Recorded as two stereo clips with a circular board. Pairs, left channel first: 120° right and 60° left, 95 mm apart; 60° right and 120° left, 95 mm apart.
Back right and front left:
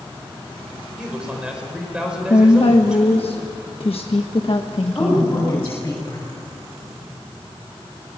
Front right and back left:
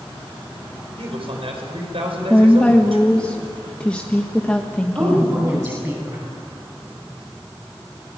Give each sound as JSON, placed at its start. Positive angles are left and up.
{"t": 1.0, "sound": "a man speaking", "azimuth_deg": 140, "distance_m": 5.5}
{"t": 2.3, "sound": "a woman speaking", "azimuth_deg": -140, "distance_m": 1.3}
{"t": 5.0, "sound": "a woman speaking", "azimuth_deg": 170, "distance_m": 7.0}